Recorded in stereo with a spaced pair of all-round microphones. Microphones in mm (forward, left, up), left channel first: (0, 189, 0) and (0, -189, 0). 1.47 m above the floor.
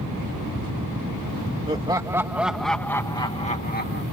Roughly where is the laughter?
Centre.